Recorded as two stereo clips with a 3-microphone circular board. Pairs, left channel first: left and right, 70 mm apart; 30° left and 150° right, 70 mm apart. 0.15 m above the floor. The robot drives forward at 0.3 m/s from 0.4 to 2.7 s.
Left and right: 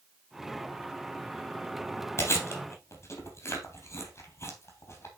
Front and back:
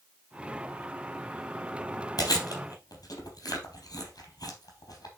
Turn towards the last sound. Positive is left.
turn(degrees=45)